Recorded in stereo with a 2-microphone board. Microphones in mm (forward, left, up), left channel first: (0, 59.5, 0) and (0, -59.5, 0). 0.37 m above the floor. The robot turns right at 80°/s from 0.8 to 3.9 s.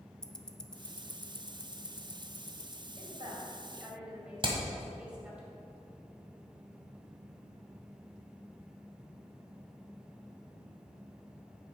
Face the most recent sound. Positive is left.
turn(degrees=-45)  # may be behind; listen again after turning